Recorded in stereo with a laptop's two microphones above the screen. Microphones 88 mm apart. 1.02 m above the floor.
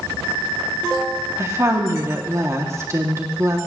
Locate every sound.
1.4 s a woman speaking: 35° right (ahead or behind), 2 m